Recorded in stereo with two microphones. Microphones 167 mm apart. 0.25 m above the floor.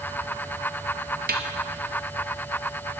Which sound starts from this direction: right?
A snare drum, at 1.3 s.